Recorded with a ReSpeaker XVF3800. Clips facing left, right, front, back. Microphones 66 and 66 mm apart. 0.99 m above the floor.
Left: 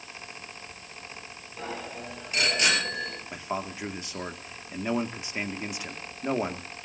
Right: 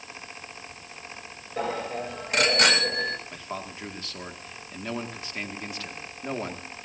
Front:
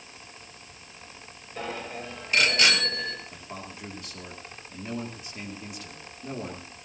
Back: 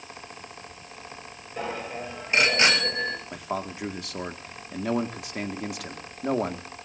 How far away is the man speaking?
About 1.9 m.